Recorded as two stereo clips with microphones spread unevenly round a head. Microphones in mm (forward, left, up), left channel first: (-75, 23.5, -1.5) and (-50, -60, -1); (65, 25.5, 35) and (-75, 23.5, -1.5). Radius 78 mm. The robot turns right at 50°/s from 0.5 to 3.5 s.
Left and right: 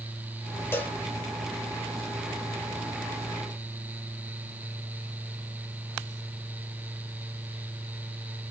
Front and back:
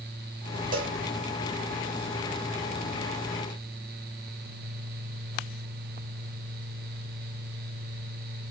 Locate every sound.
0.7 s a cowbell: 160° left, 0.9 m; by 1.0 s 175° left, 0.9 m